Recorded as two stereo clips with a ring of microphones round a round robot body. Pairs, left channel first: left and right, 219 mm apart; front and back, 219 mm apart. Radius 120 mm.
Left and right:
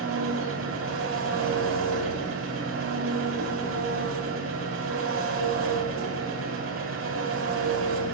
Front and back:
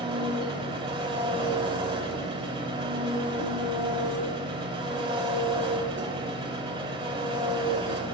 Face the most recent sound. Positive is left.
turn(degrees=-115)